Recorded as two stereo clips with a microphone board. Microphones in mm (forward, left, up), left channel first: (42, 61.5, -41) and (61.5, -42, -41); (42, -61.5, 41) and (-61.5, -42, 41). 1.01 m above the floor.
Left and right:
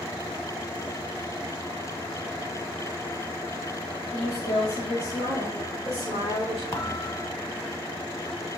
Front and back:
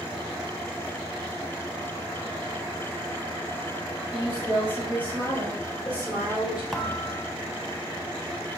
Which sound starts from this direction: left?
A thud, at 6.7 s.